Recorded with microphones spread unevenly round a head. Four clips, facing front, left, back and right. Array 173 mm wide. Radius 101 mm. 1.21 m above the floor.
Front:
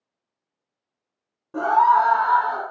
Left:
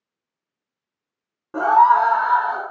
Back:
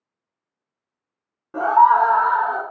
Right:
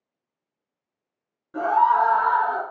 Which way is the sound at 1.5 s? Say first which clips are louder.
Left 5 dB, back 3 dB; 115° left.